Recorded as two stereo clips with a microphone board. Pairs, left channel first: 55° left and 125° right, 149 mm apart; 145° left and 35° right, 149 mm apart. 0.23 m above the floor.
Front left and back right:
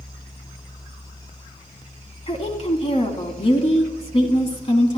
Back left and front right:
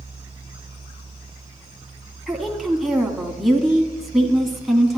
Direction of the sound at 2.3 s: 55° left.